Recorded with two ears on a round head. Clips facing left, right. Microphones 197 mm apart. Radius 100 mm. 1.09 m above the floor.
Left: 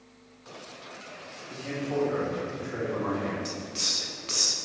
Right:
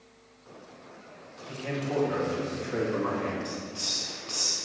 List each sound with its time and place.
1.5 s a man speaking: 65° right (ahead or behind), 2 m; by 3.4 s 35° right (ahead or behind), 2 m
3.5 s a hiss: 25° left (ahead or behind), 0.5 m